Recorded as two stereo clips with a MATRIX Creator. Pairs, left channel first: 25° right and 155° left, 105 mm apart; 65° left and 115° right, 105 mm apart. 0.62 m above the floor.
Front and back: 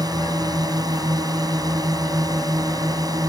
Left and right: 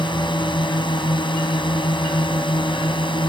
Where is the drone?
105° left.